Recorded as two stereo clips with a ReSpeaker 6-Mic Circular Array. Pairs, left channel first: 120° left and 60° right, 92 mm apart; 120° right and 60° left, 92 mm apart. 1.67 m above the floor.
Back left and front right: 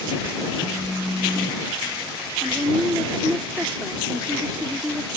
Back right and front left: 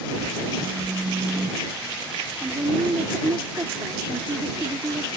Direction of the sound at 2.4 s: 20° left.